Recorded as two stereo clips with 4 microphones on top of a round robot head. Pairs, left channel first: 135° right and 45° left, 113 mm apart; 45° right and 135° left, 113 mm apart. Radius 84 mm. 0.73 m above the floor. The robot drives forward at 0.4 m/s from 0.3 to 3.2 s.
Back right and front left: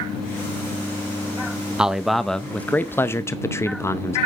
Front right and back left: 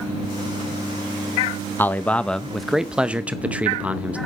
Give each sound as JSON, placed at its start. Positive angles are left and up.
{"t": 1.8, "sound": "a man speaking", "azimuth_deg": -25, "distance_m": 0.7}